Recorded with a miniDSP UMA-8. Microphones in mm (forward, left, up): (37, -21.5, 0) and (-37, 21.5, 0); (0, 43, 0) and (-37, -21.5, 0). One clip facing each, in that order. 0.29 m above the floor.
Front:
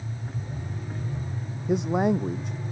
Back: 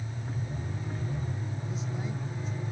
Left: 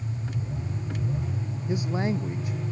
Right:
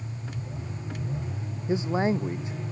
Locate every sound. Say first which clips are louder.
1.7 s a man speaking: front 17 dB, right 3 dB; 55° right